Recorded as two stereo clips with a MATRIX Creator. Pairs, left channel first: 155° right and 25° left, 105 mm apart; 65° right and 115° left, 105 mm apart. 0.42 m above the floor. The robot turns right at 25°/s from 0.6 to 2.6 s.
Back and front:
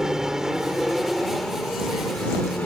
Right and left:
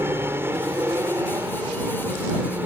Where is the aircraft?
100° left; by 2.7 s 150° left.